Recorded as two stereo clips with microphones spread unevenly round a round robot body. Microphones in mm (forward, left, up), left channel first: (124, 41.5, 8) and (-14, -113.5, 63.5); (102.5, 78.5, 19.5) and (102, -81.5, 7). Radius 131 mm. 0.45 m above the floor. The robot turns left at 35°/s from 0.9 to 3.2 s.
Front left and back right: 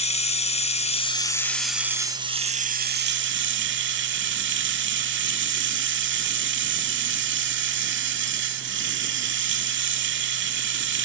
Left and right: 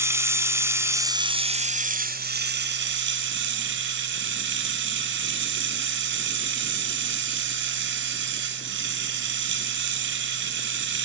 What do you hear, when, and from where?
0.0 s running water: 15° right, 1.4 m; by 11.0 s 95° right, 1.4 m